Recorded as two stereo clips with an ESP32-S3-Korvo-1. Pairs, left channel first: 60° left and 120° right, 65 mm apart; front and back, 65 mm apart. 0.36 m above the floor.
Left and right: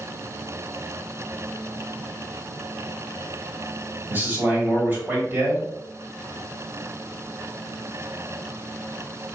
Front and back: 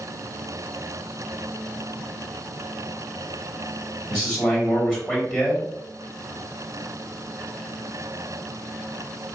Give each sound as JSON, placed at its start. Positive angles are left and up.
{"t": 4.1, "sound": "a man speaking", "azimuth_deg": -100, "distance_m": 1.6}